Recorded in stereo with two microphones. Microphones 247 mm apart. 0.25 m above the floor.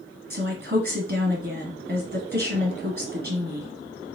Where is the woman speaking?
40° right (ahead or behind), 1.6 m.